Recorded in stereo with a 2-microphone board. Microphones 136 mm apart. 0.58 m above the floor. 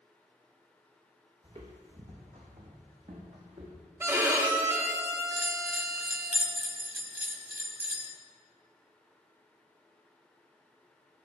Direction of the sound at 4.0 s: 20° right (ahead or behind).